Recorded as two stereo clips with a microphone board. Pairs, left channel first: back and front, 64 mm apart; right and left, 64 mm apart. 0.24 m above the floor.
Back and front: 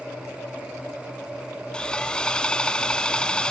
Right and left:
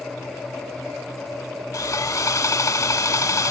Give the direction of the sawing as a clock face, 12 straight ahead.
4 o'clock.